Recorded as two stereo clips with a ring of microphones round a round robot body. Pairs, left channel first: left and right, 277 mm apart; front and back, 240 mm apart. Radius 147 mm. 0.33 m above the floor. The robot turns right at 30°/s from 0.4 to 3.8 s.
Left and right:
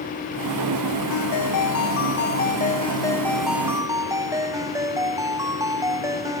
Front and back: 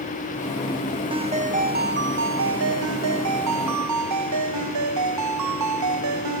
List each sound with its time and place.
1.1 s a ringtone: 110° left; by 6.4 s 170° right